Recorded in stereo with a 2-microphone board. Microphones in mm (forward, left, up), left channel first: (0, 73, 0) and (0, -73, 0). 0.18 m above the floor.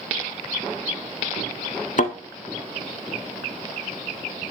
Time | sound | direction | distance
2.0 | a thud | 60° left (ahead or behind) | 0.6 m